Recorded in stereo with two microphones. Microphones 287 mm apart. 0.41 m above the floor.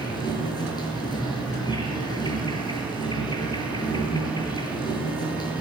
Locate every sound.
0.0 s an insect: 15° left (ahead or behind), 8 m